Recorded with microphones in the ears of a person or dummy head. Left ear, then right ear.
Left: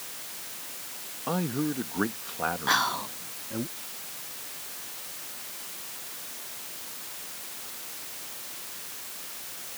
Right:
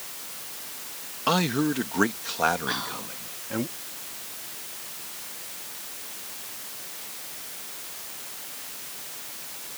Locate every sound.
1.3 s a man speaking: 60° right (ahead or behind)
2.7 s whispering: 45° left (ahead or behind)